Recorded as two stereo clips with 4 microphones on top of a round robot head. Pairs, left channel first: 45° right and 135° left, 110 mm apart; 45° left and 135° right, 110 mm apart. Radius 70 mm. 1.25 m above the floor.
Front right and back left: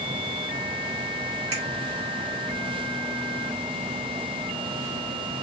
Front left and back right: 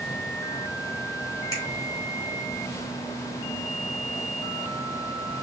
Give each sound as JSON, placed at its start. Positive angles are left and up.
{"t": 1.5, "sound": "a finger snap", "azimuth_deg": 100, "distance_m": 2.5}